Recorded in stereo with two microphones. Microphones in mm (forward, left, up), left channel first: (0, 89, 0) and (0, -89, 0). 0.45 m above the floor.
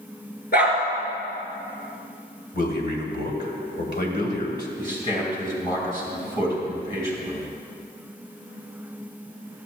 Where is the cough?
I don't hear a cough.